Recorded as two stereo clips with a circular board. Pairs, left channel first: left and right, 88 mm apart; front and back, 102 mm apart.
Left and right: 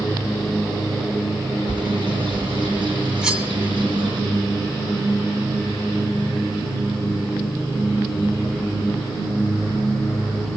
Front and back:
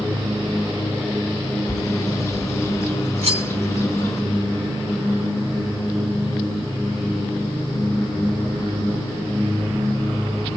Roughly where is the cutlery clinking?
Behind.